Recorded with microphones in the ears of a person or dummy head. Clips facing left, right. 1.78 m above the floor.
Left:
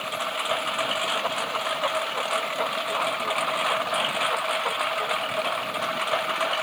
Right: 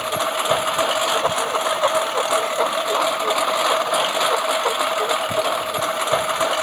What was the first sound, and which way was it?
A lawn mower, 65° right (ahead or behind).